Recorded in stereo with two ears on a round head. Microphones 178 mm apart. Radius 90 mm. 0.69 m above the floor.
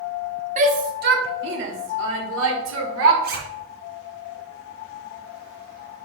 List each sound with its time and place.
0.6 s a shout: 35° right (ahead or behind), 1.1 m; by 3.1 s 75° right (ahead or behind), 2 m
3.2 s a zipper: 50° right (ahead or behind), 2.0 m